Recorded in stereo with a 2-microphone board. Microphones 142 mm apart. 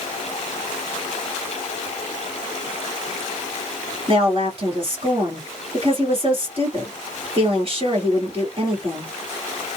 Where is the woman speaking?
40° right (ahead or behind), 2 m.